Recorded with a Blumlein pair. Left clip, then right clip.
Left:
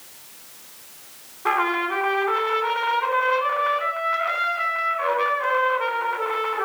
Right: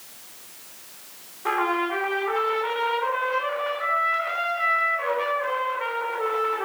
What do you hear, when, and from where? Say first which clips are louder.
1.4 s a trumpet: left 2 dB; 5° left, 3 m